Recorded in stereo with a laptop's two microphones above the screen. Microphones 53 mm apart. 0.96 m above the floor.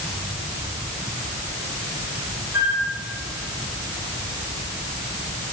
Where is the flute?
55° right (ahead or behind), 3 m.